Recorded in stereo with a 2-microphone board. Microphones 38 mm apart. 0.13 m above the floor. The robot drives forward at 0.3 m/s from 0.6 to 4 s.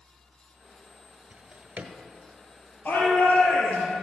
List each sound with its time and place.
1.3 s a drawer: 45° right (ahead or behind), 1.2 m; by 1.9 s 40° right (ahead or behind), 1.3 m
2.9 s a shout: 60° left (ahead or behind), 3 m